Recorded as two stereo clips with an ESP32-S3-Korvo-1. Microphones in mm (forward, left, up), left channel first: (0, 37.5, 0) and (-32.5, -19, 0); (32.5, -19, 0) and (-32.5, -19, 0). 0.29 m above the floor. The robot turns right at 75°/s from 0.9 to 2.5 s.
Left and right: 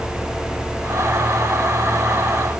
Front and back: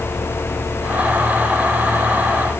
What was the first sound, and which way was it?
Only background noise.